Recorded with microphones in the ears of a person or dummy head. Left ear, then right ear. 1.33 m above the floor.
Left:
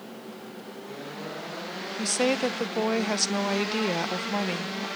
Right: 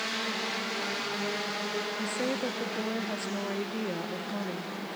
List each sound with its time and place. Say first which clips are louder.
2.0 s a woman speaking: left 6 dB; 45° left (ahead or behind), 0.5 m